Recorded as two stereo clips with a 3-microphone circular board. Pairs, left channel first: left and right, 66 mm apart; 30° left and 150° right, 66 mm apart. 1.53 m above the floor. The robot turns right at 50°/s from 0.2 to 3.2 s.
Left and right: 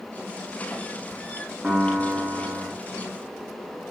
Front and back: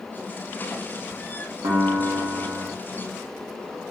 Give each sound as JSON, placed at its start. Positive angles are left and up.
{"t": 1.6, "sound": "a piano", "azimuth_deg": -170, "distance_m": 0.9}